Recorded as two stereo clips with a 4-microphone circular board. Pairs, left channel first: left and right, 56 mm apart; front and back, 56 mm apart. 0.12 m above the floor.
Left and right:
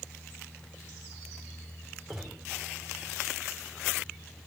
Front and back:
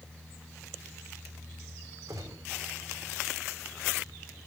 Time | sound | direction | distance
2.1 | a gunshot | 175° right | 4 m